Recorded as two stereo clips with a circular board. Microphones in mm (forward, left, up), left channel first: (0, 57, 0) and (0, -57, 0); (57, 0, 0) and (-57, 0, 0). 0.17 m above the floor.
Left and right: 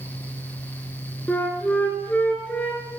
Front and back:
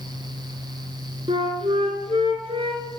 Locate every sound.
1.3 s a flute: 165° left, 2 m